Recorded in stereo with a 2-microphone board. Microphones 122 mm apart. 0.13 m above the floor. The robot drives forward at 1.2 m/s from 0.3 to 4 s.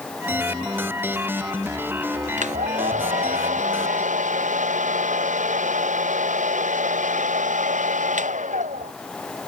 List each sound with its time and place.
2.4 s a hair dryer: 75° right (ahead or behind); by 8.9 s 80° right